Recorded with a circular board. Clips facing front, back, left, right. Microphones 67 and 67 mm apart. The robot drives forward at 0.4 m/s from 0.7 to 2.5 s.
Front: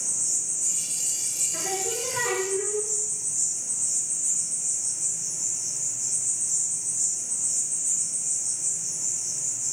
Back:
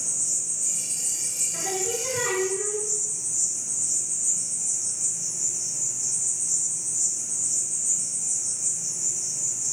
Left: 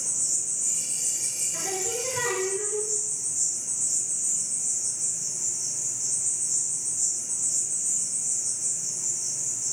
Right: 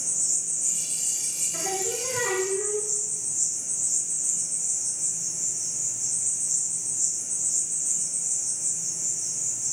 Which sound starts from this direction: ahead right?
Singing, at 1.5 s.